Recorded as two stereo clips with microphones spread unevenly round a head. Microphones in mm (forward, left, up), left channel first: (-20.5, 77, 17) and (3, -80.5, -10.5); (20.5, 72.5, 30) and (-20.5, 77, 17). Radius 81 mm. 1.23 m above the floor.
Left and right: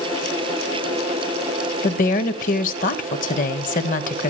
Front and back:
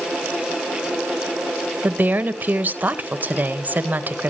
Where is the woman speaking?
140° left, 1.6 m.